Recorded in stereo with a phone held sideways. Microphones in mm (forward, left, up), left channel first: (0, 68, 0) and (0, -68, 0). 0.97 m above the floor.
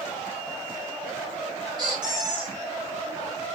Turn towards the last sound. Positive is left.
turn(degrees=-35)  # may be behind; listen again after turning